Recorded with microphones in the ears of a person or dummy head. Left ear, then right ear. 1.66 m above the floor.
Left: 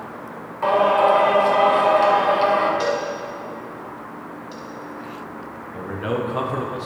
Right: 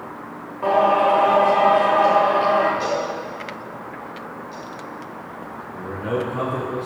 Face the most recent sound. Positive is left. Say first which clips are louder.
# even
turn(degrees=45)  # may be behind; listen again after turning